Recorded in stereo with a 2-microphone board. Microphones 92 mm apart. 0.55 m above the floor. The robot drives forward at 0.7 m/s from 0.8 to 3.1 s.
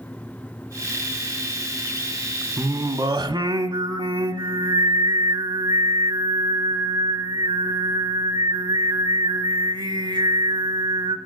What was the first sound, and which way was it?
Singing, 40° right (ahead or behind).